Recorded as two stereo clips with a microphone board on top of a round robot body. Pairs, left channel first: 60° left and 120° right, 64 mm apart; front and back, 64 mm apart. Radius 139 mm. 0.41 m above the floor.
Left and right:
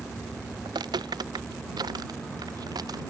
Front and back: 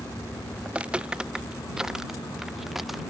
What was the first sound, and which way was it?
Footsteps, 105° right.